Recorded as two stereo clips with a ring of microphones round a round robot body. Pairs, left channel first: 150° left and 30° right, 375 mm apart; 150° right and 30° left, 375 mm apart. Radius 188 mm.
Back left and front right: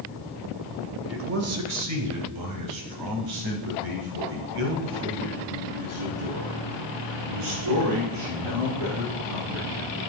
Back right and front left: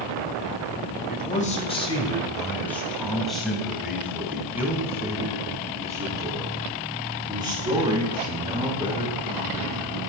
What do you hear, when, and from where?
1.1 s a man speaking: 85° right, 1.5 m; by 10.0 s 45° right, 7 m